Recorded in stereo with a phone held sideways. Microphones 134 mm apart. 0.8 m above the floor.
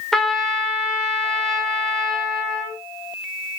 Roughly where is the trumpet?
Centre.